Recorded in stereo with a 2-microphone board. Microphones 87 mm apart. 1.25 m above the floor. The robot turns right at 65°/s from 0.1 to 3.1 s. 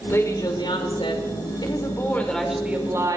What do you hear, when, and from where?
0.1 s a woman speaking: 30° left, 5 m; by 3.2 s 135° right, 5 m